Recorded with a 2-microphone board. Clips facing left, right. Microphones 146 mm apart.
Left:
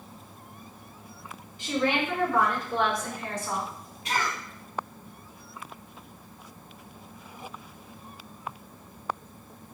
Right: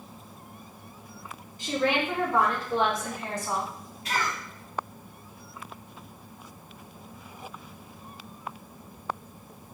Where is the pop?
No pop in this recording.